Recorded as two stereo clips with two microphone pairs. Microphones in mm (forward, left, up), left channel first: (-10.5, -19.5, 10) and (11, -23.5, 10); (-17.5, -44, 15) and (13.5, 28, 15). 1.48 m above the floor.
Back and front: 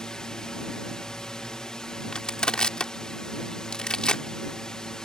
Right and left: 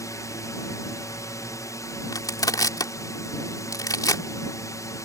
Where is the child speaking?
I don't hear a child speaking.